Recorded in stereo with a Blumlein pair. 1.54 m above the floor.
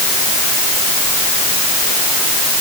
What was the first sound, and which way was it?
Only background noise.